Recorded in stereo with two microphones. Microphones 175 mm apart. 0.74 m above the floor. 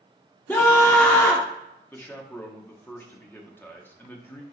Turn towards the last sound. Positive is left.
turn(degrees=10)  # may be behind; listen again after turning